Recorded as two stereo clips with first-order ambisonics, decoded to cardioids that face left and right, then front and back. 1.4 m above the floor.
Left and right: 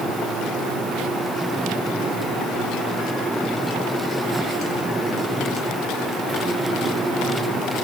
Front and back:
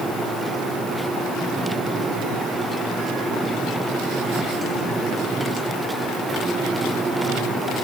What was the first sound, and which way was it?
Only background noise.